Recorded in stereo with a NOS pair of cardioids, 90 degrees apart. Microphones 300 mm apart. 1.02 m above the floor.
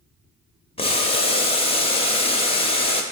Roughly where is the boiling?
Ahead.